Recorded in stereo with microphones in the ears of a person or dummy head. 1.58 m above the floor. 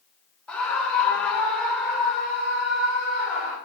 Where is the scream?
10° left (ahead or behind), 0.8 m; by 3.6 s 5° left (ahead or behind), 3.5 m.